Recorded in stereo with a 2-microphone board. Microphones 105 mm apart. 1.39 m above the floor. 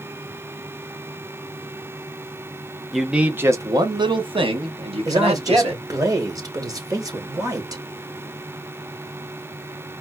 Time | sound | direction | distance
2.9 | a man speaking | centre (ahead or behind) | 0.7 m
5.0 | a man speaking | 35° right (ahead or behind) | 1.2 m